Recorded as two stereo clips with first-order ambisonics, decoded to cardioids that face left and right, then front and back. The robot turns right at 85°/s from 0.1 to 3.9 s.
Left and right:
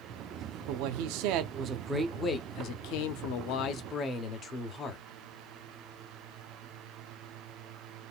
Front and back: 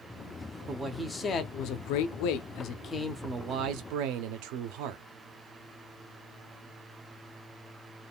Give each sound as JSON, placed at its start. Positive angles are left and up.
{"t": 0.7, "sound": "a man speaking", "azimuth_deg": -120, "distance_m": 0.7}